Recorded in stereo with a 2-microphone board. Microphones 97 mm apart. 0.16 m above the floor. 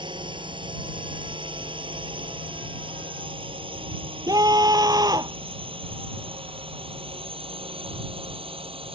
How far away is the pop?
I don't hear a pop.